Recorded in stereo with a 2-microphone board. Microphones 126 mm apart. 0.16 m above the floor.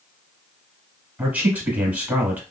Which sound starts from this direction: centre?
A man speaking, at 1.2 s.